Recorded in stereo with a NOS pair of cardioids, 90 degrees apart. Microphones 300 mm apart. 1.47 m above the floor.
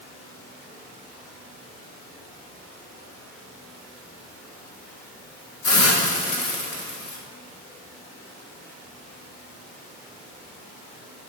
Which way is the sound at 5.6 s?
50° left.